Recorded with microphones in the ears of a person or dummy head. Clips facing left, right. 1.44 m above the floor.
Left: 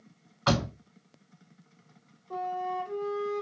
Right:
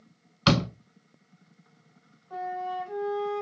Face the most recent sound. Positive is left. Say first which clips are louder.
# even
turn(degrees=70)  # may be behind; listen again after turning